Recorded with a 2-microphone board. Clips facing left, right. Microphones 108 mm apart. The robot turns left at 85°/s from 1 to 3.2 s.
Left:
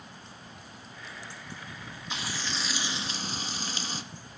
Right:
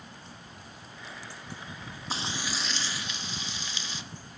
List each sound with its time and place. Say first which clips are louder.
2.1 s frying: right 2 dB; 135° right, 1.0 m; by 4.0 s 130° left, 1.0 m